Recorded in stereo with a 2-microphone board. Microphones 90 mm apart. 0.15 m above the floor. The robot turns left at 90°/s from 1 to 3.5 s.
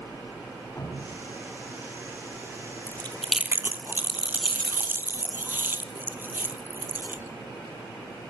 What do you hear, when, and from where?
0.8 s dripping: 25° left (ahead or behind), 8.5 m; by 1.2 s centre (ahead or behind), 8.5 m
2.9 s chewing: 35° left (ahead or behind), 1.7 m; by 7.3 s 20° right (ahead or behind), 1.7 m